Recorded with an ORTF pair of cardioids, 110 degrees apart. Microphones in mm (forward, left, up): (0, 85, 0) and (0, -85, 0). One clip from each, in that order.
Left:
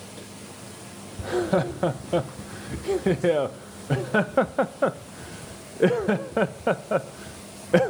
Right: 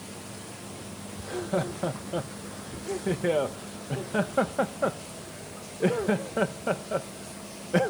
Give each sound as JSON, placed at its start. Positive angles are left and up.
{"t": 1.2, "sound": "laughter", "azimuth_deg": 45}